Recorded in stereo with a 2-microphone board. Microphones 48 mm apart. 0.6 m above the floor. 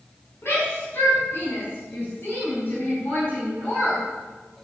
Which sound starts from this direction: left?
A shout, at 0.4 s.